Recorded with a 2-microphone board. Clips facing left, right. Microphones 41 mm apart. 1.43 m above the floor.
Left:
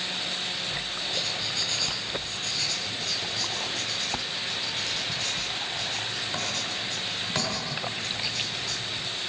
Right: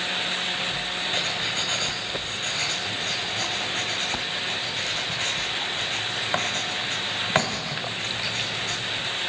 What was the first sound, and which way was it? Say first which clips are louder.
Writing: right 4 dB; 45° right (ahead or behind).